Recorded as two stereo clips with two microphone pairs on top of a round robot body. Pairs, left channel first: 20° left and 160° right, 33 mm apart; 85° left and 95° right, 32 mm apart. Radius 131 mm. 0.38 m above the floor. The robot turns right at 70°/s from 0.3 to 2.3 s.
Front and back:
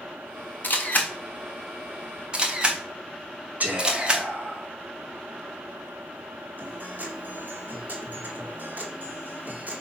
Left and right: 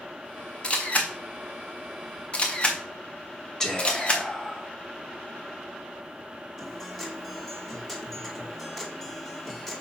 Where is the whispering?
160° left, 2.5 m.